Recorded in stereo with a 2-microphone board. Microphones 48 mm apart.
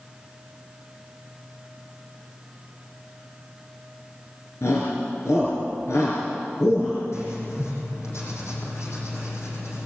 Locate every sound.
4.6 s a shout: 75° left (ahead or behind), 5 m
7.1 s writing: 80° left, 7 m